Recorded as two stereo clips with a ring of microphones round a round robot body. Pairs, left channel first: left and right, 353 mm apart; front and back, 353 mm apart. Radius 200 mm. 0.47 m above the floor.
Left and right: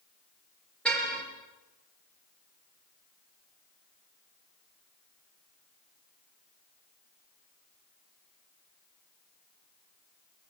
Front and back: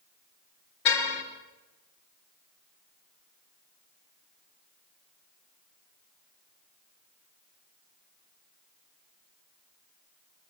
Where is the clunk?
No clunk in this recording.